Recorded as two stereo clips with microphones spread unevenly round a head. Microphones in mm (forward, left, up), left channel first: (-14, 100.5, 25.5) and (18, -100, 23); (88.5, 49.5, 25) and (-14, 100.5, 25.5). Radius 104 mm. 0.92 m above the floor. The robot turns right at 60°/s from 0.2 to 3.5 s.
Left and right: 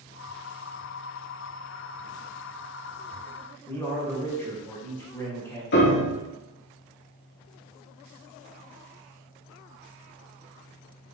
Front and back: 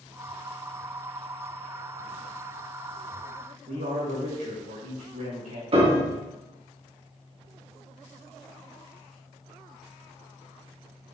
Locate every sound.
3.7 s a man speaking: 175° left, 3 m
5.7 s a piano: 125° left, 1.9 m